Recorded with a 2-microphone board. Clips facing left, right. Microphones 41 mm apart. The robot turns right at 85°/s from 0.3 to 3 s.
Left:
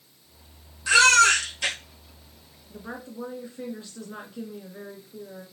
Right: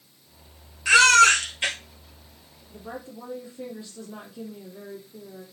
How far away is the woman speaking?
About 2 m.